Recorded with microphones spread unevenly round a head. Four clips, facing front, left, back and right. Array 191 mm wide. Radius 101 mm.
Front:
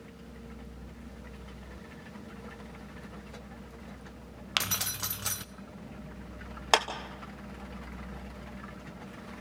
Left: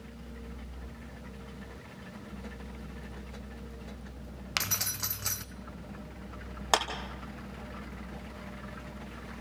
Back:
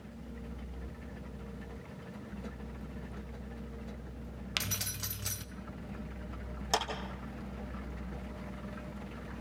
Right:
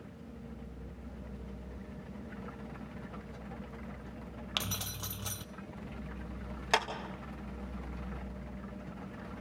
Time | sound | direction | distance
4.6 | keys jangling | straight ahead | 0.5 m
6.7 | a clap | 25° left | 2.5 m